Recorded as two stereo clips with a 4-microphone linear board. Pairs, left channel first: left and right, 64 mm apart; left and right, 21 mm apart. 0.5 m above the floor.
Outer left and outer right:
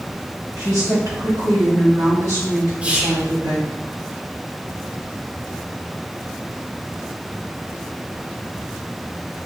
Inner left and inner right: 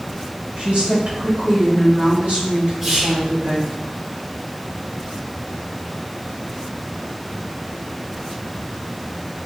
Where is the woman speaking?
60° right (ahead or behind), 1.8 m; by 3.7 s 70° right (ahead or behind), 4 m.